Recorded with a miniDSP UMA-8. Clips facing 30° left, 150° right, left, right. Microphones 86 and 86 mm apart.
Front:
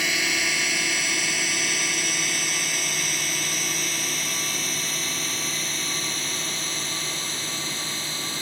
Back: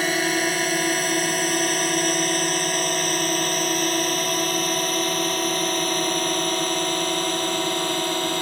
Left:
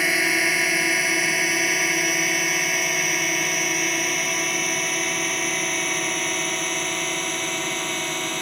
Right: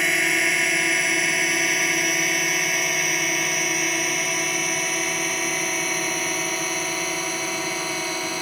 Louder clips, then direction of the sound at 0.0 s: Back 5 dB, even; 175° left.